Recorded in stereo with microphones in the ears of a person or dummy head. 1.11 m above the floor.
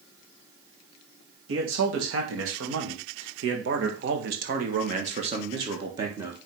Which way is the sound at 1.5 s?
65° right (ahead or behind).